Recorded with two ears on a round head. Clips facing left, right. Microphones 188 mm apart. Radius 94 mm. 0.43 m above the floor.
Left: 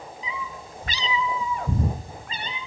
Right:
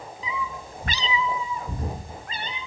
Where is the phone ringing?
I don't hear a phone ringing.